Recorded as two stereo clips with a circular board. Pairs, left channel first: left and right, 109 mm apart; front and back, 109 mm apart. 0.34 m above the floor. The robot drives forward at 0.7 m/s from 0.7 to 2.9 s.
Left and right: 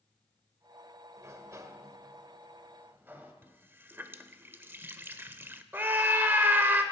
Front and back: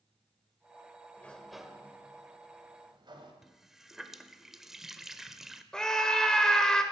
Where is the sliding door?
60° right, 0.9 m; by 3.3 s 155° right, 1.3 m.